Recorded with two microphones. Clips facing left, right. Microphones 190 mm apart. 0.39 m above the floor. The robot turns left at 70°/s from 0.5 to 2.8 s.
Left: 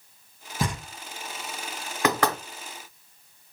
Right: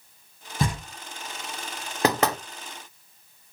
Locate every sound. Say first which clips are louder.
0.6 s knocking: right 2 dB; centre (ahead or behind), 2.0 m; by 0.8 s 10° right (ahead or behind), 2.0 m
2.0 s knocking: right 1 dB; 35° right (ahead or behind), 0.9 m; by 2.4 s 15° right (ahead or behind), 0.9 m